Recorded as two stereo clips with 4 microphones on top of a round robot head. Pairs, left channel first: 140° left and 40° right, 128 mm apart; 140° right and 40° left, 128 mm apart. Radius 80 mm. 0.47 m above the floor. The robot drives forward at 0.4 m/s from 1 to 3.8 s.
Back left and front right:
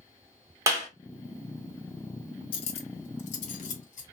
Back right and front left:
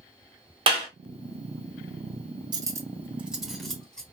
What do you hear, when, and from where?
0.7 s a clap: 15° left, 1.3 m
2.5 s cutlery clinking: 95° left, 0.6 m; by 4.0 s 140° left, 0.8 m